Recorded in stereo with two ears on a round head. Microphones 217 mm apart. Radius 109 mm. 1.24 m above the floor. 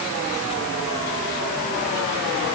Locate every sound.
Only background noise.